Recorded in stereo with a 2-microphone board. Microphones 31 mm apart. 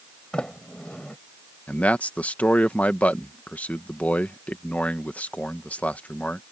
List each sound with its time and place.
0.3 s a sliding door: 30° left (ahead or behind)
1.7 s a man speaking: 55° left (ahead or behind)